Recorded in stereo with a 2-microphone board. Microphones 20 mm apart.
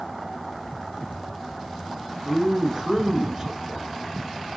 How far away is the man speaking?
About 2.5 m.